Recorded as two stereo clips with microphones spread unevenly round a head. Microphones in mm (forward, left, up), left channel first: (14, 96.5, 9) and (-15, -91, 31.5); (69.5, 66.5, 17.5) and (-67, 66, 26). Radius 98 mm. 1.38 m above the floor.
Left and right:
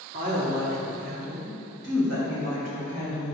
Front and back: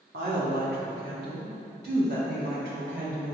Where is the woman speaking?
145° right, 2.5 m; by 3.4 s 140° right, 5.5 m.